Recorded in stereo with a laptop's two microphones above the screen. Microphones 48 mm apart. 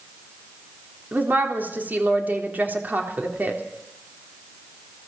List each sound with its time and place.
1.1 s a woman speaking: 40° right (ahead or behind), 3.5 m